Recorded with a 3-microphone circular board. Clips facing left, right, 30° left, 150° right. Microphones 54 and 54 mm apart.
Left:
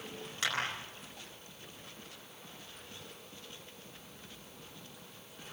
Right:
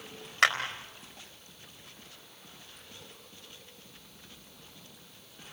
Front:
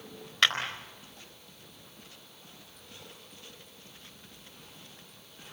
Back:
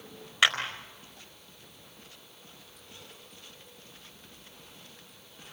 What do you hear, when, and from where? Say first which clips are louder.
0.4 s a clap: right 11 dB, back 2 dB; 70° right, 4 m